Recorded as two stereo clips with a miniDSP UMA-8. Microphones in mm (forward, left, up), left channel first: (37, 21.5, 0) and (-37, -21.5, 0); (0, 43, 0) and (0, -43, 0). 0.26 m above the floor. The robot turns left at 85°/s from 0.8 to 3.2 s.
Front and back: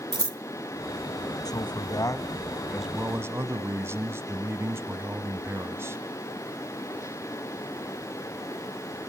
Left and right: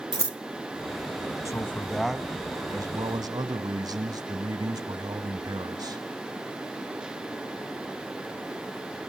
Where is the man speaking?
50° left, 1.4 m; by 6.0 s 95° right, 1.4 m.